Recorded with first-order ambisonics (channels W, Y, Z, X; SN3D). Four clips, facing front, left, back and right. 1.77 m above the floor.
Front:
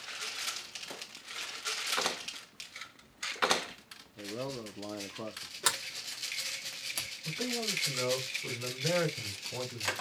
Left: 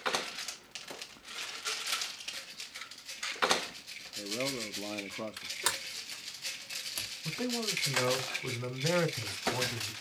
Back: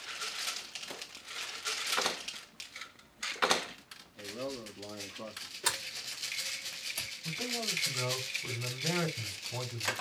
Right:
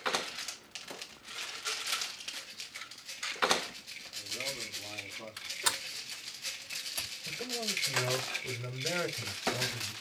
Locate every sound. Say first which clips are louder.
4.2 s a man speaking: left 3 dB, front 1 dB; 55° left, 0.9 m
5.6 s a sliding door: right 1 dB, front 2 dB; 20° left, 1.4 m
7.2 s a man speaking: left 3 dB, front 1 dB; 90° left, 4 m